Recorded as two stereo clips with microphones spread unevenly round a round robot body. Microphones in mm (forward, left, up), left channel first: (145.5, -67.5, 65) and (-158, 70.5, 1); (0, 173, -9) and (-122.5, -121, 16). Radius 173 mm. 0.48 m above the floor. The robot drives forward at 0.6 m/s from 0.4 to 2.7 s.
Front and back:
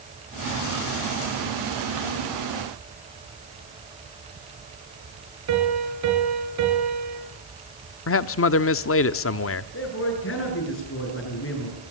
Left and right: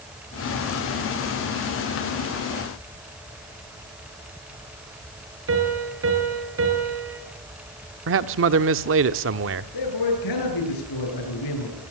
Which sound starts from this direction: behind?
A piano, at 5.5 s.